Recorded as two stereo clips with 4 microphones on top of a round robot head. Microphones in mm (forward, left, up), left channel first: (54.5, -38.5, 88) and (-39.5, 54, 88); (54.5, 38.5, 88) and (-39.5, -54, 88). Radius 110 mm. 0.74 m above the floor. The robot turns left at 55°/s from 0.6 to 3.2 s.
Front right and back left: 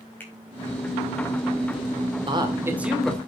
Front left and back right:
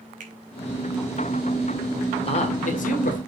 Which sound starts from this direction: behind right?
A finger snap, at 0.2 s.